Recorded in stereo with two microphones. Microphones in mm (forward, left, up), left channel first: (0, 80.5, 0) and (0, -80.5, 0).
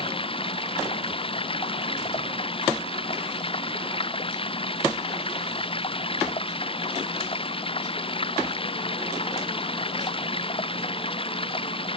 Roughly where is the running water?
Left.